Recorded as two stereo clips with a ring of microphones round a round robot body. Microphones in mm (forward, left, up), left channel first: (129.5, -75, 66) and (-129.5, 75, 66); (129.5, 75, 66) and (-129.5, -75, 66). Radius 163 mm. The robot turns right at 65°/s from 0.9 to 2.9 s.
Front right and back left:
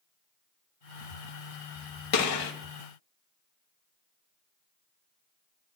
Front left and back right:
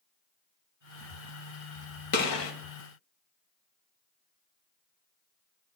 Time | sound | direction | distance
2.1 | a gunshot | 15° right | 1.3 m